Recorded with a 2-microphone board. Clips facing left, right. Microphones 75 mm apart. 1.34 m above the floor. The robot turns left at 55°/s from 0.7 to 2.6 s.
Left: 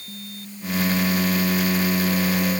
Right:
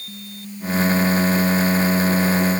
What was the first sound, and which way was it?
Only background noise.